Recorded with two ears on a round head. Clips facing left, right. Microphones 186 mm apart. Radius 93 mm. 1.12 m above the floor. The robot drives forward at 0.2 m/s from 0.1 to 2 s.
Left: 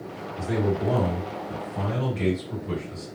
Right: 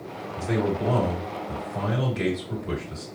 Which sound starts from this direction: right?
A man speaking, at 0.4 s.